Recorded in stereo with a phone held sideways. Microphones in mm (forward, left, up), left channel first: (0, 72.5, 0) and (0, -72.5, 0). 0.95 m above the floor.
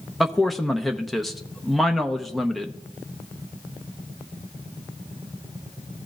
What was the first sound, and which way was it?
A man speaking, centre (ahead or behind).